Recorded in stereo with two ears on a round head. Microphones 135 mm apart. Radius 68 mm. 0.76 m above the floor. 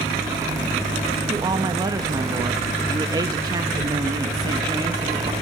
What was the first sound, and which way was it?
A woman speaking, 25° right (ahead or behind).